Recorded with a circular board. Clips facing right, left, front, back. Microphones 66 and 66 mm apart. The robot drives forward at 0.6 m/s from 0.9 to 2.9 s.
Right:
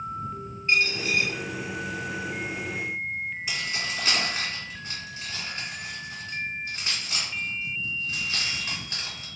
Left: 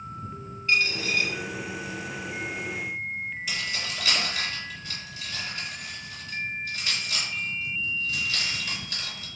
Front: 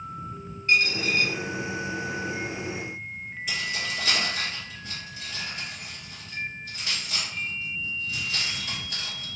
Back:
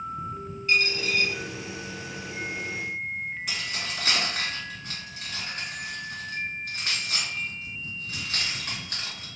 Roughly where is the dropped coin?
Ahead right.